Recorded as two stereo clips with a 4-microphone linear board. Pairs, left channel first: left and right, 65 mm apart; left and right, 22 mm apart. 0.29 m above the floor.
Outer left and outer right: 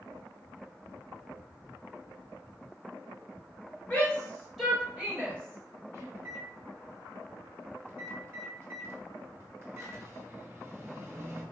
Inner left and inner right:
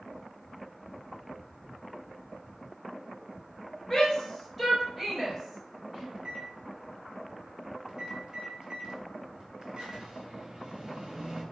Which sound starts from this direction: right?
A microwave, at 6.1 s.